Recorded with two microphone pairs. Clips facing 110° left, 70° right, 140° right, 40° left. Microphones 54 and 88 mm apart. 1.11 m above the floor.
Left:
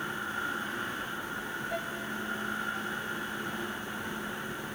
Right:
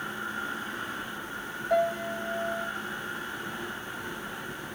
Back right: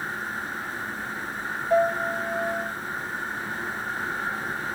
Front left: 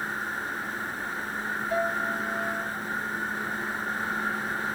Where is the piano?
90° right, 1.8 m.